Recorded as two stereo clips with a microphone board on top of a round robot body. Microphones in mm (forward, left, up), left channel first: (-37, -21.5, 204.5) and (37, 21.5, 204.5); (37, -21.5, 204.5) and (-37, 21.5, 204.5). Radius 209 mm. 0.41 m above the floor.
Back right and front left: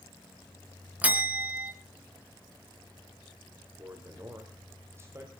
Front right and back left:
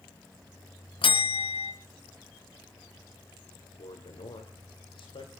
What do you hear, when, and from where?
1.0 s a bell: 45° right, 2.0 m
3.8 s a man speaking: 30° right, 2.5 m